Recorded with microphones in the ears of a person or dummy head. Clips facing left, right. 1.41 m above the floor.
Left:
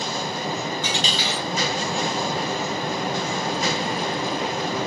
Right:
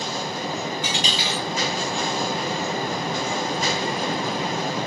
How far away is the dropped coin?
About 1.3 m.